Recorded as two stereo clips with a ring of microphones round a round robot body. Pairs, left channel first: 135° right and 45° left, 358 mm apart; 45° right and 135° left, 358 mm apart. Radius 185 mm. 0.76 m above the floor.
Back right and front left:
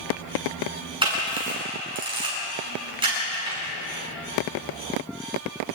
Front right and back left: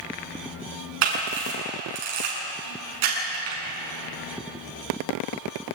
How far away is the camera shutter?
About 8 m.